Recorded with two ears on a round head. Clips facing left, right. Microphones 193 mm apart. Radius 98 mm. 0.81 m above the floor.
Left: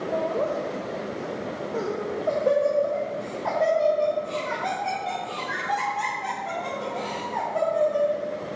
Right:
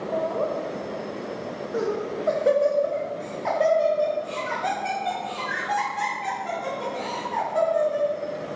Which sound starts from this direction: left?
Laughter, at 0.1 s.